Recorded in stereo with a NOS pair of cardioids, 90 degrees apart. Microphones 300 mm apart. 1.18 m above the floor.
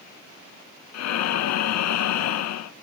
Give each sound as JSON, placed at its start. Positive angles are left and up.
{"t": 0.9, "sound": "breathing", "azimuth_deg": 65, "distance_m": 0.6}